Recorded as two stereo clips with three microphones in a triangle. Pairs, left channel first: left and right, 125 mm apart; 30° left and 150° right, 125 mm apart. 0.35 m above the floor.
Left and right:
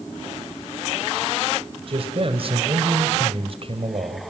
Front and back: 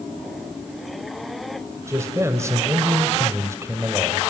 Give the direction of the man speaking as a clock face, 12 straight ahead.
3 o'clock.